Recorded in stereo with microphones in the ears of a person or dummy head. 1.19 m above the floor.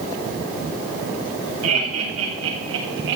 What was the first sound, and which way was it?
Laughter, 80° right.